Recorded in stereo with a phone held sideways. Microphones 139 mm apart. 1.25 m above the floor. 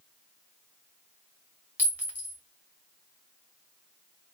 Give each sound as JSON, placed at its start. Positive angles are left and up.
{"t": 1.8, "sound": "a clink", "side_deg": -15, "distance_m": 1.0}